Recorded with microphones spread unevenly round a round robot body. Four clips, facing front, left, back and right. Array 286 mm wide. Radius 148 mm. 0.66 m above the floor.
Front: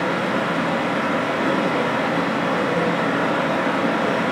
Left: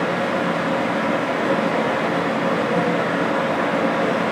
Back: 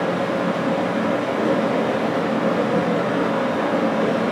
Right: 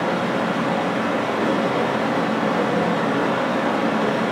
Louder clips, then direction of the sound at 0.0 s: Even, back 1 dB; 165° right.